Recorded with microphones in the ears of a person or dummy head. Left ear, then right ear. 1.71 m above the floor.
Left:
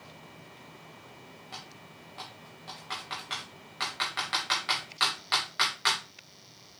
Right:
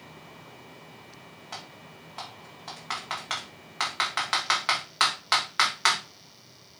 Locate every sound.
1.5 s typing on a keyboard: 25° right (ahead or behind), 2.5 m